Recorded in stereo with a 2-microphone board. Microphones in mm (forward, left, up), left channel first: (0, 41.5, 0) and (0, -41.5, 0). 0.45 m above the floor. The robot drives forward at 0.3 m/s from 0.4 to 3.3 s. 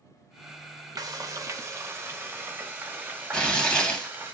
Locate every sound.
1.0 s frying: 45° right (ahead or behind), 0.6 m; by 4.3 s 20° right (ahead or behind), 1.1 m
3.3 s tearing paper: 10° left (ahead or behind), 2.0 m